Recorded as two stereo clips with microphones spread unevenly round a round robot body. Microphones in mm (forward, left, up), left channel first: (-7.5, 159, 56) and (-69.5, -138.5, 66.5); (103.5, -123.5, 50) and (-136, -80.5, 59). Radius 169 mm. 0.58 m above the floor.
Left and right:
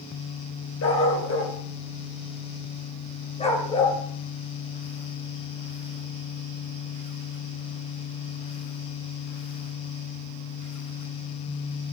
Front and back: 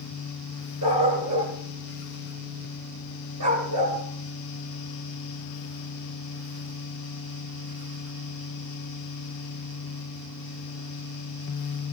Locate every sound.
0.8 s a dog barking: 125° left, 3.5 m; by 4.0 s 155° left, 3.5 m